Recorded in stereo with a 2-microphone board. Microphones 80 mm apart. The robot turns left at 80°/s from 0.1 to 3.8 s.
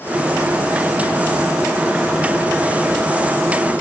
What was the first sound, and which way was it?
Only background noise.